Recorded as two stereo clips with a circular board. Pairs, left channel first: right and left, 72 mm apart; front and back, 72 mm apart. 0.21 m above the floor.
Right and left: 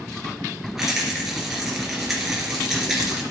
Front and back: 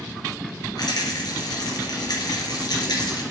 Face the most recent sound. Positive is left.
turn(degrees=5)